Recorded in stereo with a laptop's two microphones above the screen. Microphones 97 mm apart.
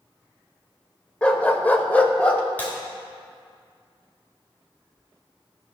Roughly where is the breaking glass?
Centre.